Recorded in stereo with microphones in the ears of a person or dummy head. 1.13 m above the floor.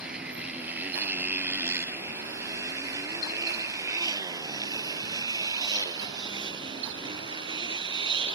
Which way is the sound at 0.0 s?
5° right (ahead or behind).